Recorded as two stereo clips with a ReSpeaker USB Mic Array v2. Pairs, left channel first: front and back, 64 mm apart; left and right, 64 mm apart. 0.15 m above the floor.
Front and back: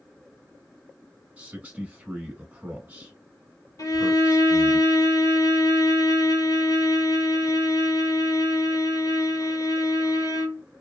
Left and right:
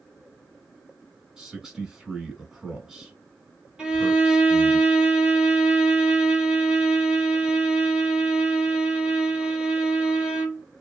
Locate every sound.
1.4 s a man speaking: 155° right, 1.1 m
3.8 s a violin: 15° right, 1.0 m